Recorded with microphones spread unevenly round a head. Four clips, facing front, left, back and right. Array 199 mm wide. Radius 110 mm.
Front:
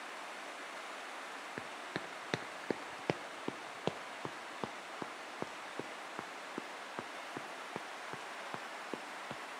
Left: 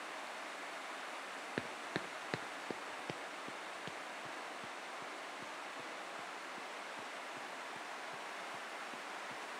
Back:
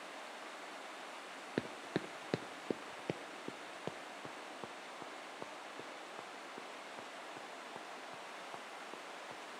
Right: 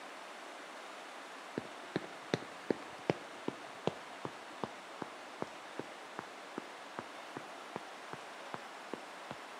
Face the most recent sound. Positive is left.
turn(degrees=-35)